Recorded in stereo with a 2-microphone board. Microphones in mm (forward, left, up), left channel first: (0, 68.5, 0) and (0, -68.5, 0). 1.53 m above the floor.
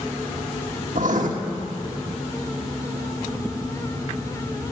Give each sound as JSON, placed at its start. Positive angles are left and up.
{"t": 0.9, "sound": "writing", "side_deg": -70, "distance_m": 1.6}